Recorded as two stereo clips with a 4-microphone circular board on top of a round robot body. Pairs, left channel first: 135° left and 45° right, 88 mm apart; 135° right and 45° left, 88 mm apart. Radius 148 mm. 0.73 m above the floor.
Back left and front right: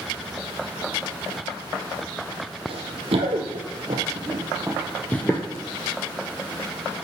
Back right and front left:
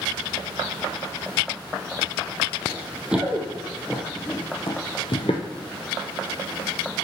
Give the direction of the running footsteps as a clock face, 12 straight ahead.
1 o'clock.